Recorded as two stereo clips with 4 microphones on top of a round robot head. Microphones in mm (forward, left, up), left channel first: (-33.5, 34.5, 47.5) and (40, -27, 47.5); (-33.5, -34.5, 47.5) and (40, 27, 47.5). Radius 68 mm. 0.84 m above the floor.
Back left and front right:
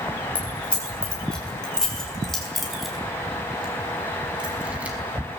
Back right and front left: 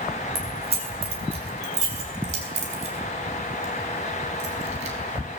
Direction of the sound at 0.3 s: 65° left.